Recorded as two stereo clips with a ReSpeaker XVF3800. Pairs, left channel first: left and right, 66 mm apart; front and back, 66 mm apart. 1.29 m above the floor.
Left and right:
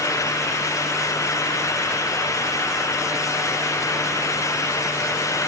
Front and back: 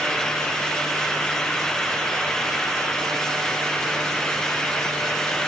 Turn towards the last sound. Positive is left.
No sound to turn to.